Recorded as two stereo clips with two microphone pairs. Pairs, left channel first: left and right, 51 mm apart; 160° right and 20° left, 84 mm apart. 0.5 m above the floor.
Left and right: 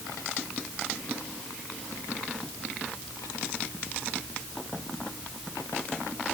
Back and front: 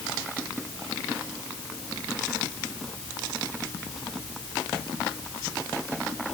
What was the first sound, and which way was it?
Only background noise.